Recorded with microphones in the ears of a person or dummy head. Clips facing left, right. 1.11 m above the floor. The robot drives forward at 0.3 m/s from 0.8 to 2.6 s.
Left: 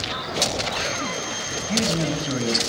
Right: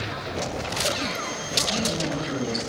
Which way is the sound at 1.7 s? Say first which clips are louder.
Left 4 dB; 35° left (ahead or behind).